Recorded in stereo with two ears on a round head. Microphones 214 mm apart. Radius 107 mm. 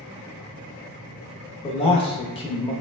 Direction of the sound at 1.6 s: 25° left (ahead or behind).